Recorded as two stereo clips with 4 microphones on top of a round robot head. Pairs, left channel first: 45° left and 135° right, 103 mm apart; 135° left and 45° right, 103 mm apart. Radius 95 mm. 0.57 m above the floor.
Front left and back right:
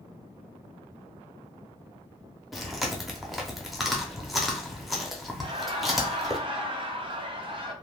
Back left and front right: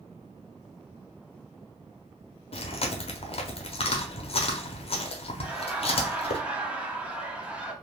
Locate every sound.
2.5 s chewing: 135° left, 0.7 m
5.4 s laughter: 125° right, 1.0 m